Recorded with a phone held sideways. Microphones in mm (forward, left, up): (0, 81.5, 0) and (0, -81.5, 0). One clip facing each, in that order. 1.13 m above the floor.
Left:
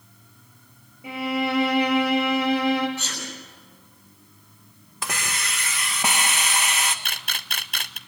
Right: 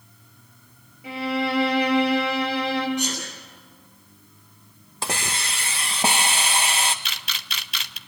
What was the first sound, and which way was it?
A violin, 20° left (ahead or behind).